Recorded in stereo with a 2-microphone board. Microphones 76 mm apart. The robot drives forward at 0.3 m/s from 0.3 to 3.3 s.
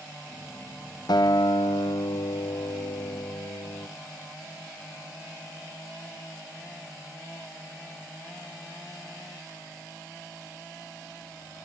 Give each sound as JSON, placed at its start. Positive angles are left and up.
{"t": 1.1, "sound": "a guitar", "side_deg": 70, "distance_m": 1.1}